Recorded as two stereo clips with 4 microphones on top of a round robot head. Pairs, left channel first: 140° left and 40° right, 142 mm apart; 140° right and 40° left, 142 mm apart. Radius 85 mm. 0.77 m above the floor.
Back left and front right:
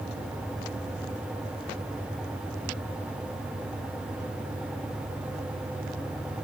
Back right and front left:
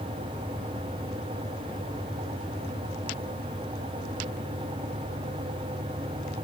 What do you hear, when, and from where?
Only background noise.